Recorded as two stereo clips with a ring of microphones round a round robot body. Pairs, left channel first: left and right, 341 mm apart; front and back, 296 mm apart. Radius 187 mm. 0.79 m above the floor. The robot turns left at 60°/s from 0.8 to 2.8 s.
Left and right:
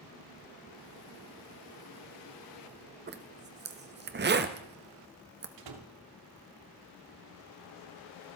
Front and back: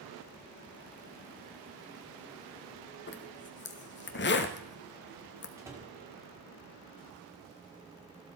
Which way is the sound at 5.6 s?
100° right.